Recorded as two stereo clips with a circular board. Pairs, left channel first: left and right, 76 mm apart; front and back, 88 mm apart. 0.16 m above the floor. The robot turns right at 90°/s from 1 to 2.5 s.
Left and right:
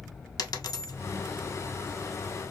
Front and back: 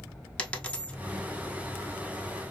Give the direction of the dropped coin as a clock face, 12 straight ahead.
10 o'clock.